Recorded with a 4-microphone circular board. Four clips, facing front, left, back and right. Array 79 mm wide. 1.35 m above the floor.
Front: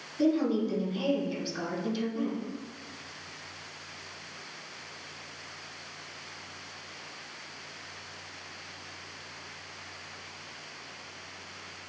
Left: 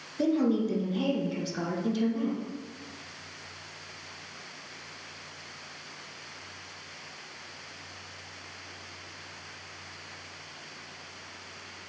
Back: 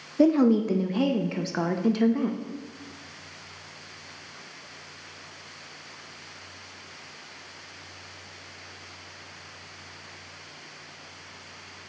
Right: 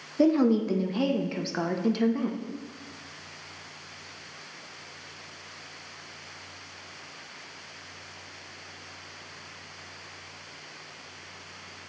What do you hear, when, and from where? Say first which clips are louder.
0.2 s a woman speaking: right 4 dB, back 6 dB; 150° right, 0.7 m